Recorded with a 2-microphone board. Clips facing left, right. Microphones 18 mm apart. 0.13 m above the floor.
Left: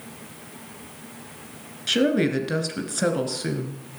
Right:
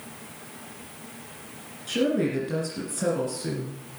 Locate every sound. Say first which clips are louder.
1.9 s a woman speaking: left 4 dB; 45° left (ahead or behind), 2 m